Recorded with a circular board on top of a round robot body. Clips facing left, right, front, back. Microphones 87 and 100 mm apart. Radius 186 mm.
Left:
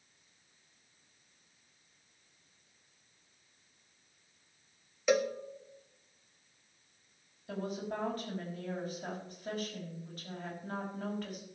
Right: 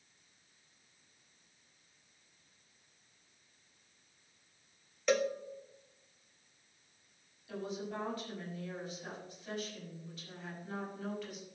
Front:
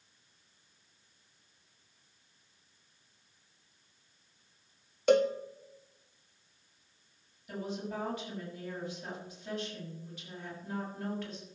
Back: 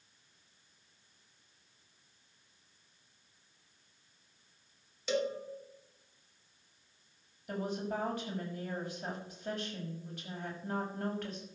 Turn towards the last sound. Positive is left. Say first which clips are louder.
# left 3 dB, back 2 dB
turn(degrees=135)